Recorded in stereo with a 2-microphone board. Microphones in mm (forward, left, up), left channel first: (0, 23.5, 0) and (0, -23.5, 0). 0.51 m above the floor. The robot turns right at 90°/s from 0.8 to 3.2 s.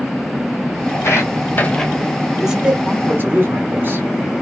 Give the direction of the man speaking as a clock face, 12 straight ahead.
6 o'clock.